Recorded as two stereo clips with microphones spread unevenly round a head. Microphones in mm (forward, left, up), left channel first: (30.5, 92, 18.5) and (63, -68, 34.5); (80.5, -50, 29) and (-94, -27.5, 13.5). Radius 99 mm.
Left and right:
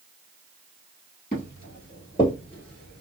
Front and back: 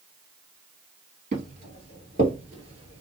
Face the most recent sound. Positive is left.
turn(degrees=-155)